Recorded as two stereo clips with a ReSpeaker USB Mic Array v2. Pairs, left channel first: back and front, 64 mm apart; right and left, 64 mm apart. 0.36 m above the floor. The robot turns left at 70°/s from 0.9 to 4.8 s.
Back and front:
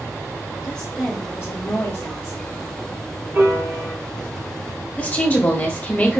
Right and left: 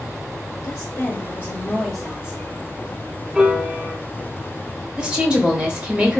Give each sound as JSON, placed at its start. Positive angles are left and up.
{"t": 0.6, "sound": "a woman speaking", "azimuth_deg": -105, "distance_m": 1.7}
{"t": 3.4, "sound": "a piano", "azimuth_deg": 25, "distance_m": 1.6}
{"t": 5.0, "sound": "a woman speaking", "azimuth_deg": 150, "distance_m": 1.4}